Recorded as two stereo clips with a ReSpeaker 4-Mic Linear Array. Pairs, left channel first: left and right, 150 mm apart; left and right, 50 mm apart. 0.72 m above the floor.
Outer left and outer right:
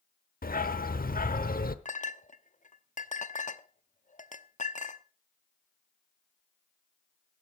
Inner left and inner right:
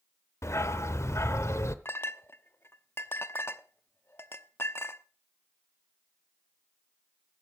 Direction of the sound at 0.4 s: 75° left (ahead or behind).